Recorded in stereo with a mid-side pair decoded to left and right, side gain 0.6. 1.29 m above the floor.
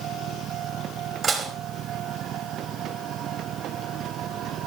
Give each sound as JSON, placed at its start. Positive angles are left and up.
{"t": 1.2, "sound": "dishes clattering", "azimuth_deg": -25, "distance_m": 5.0}